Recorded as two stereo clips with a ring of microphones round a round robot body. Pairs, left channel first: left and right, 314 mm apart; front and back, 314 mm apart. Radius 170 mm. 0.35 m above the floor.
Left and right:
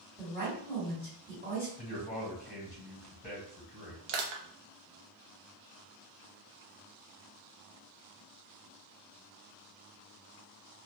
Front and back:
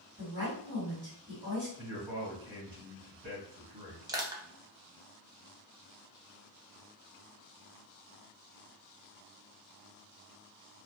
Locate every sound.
0.2 s a woman speaking: 145° right, 2.0 m
1.8 s a man speaking: 155° left, 1.4 m
4.1 s crushing: 100° right, 0.7 m